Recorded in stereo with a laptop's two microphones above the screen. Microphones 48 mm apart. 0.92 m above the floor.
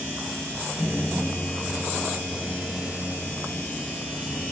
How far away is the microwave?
About 1.6 m.